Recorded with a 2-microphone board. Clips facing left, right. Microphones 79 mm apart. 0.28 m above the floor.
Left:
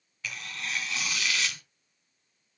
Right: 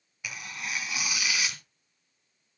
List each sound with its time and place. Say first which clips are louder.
0.2 s tearing paper: even; 15° right (ahead or behind), 2 m